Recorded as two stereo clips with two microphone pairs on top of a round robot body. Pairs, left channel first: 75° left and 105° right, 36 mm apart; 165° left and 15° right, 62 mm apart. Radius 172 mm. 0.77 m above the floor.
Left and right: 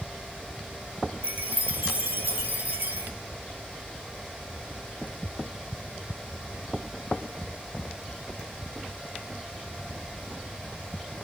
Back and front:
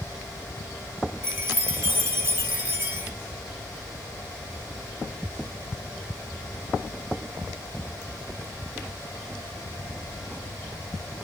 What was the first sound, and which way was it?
A chime, 70° right.